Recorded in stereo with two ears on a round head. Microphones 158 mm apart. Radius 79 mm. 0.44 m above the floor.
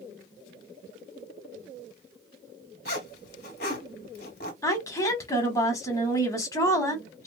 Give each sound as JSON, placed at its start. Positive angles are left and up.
{"t": 2.9, "sound": "a zipper", "side_deg": 60, "distance_m": 1.8}
{"t": 4.6, "sound": "a woman speaking", "side_deg": 20, "distance_m": 1.0}